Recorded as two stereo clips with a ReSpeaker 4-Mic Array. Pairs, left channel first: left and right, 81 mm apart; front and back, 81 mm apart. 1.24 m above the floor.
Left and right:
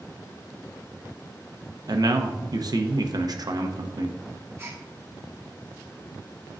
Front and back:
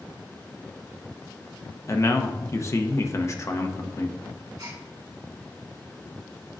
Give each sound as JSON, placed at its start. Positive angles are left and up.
{"t": 1.9, "sound": "a man speaking", "azimuth_deg": -55, "distance_m": 0.7}
{"t": 4.6, "sound": "a gasp", "azimuth_deg": -150, "distance_m": 1.4}